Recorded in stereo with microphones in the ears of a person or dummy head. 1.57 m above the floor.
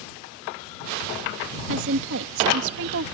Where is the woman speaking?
65° right (ahead or behind).